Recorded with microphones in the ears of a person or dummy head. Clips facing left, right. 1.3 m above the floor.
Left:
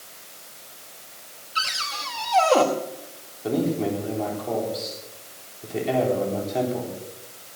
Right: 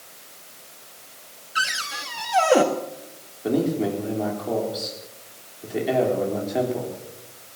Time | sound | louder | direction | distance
1.6 | a cupboard door | right 1 dB | 15° right (ahead or behind) | 1.2 m
3.4 | a man speaking | right 1 dB | 5° right (ahead or behind) | 4 m